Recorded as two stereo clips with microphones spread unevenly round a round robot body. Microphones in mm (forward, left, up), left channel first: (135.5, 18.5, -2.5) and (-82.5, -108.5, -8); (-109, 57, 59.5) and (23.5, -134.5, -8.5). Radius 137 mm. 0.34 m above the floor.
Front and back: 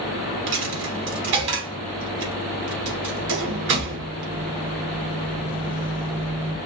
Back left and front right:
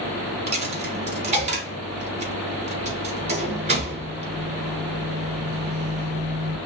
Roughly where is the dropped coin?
Behind right.